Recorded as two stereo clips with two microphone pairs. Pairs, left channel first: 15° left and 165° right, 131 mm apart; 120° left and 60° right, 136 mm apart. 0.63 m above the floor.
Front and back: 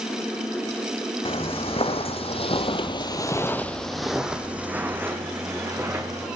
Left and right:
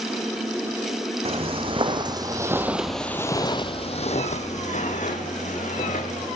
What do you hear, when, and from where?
1.2 s footsteps: 25° right, 1.6 m; by 6.3 s 130° left, 2.5 m